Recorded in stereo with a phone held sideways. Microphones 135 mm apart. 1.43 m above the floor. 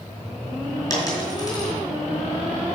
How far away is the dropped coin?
About 4 m.